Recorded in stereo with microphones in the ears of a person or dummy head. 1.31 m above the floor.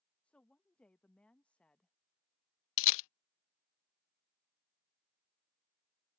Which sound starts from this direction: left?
A camera shutter, at 2.8 s.